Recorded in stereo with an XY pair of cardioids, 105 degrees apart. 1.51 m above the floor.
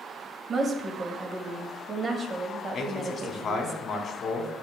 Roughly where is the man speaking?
Ahead left.